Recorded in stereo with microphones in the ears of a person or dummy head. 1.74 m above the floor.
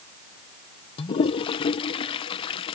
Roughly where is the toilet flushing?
Left.